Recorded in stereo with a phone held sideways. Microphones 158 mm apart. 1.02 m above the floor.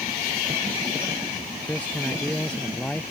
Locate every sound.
1.7 s a man speaking: 10° left (ahead or behind); by 3.1 s 5° left (ahead or behind)